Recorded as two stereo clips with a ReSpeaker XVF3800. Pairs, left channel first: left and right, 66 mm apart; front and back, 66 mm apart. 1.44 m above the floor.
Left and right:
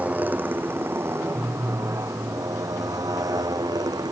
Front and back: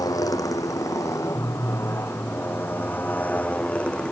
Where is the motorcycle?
25° right; by 4.1 s 75° right.